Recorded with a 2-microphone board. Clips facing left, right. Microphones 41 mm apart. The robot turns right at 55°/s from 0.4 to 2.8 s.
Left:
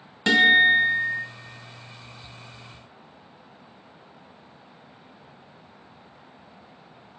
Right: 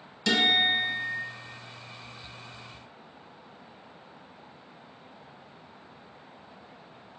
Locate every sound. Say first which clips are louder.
0.3 s a guitar: left 8 dB; 135° left, 0.5 m; by 1.2 s 175° right, 0.5 m